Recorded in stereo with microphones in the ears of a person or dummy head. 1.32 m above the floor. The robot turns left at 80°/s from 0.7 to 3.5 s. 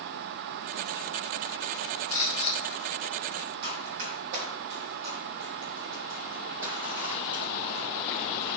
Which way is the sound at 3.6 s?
55° right (ahead or behind).